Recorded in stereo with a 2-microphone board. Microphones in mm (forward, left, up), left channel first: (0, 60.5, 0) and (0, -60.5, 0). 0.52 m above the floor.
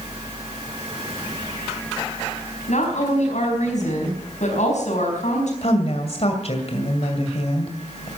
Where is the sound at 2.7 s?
75° left (ahead or behind), 4.5 m.